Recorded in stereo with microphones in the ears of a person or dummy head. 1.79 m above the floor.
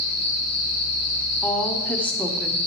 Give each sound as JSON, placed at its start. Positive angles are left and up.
{"t": 0.0, "sound": "an insect", "side_deg": 35, "distance_m": 1.3}
{"t": 1.4, "sound": "a woman speaking", "side_deg": 5, "distance_m": 1.2}